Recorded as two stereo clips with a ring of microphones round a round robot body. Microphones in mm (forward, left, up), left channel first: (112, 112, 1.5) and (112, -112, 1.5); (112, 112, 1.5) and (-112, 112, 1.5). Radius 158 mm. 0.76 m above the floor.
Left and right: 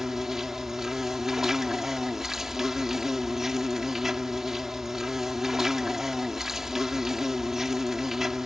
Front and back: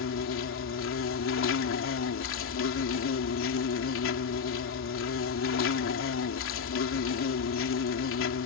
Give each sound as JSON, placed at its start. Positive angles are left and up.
{"t": 0.0, "sound": "an insect", "azimuth_deg": 0}